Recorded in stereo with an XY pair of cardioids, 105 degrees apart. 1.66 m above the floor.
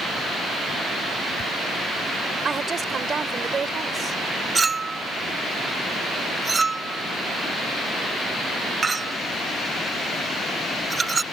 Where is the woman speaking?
35° right.